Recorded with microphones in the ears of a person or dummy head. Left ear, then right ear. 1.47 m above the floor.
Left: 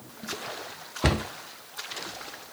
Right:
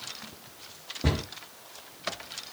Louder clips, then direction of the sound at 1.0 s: Left 5 dB; 45° left (ahead or behind).